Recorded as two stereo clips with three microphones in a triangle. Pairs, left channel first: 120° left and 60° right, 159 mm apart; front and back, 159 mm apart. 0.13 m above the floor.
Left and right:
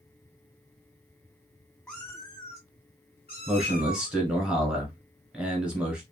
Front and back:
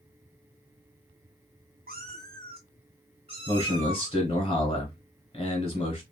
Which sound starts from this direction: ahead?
A man speaking, at 3.5 s.